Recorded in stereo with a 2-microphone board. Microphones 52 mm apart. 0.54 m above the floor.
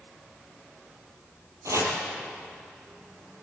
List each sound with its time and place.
1.6 s chopping: 70° right (ahead or behind), 4.5 m